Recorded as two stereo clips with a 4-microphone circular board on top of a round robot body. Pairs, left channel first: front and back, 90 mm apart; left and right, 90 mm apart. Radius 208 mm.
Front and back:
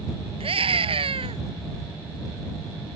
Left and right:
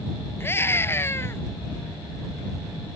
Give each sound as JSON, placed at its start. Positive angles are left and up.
{"t": 0.4, "sound": "a scream", "azimuth_deg": 155}